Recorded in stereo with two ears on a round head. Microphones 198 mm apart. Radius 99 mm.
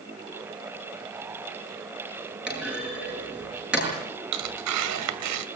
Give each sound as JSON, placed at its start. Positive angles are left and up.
{"t": 2.5, "sound": "a clunk", "side_deg": -5, "distance_m": 8.5}
{"t": 4.3, "sound": "tearing paper", "side_deg": -85, "distance_m": 2.0}